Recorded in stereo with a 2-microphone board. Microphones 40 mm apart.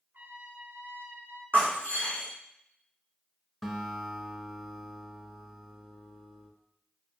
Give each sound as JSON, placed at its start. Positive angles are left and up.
{"t": 0.1, "sound": "a trumpet", "side_deg": -55, "distance_m": 1.1}
{"t": 1.5, "sound": "breaking glass", "side_deg": -50, "distance_m": 2.0}
{"t": 3.6, "sound": "a guitar", "side_deg": 5, "distance_m": 1.0}